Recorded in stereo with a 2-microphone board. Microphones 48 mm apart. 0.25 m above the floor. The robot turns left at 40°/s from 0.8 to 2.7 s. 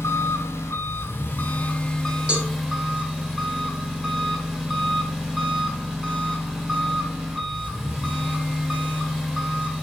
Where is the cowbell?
20° right (ahead or behind), 1.0 m; by 2.5 s 30° right (ahead or behind), 1.0 m.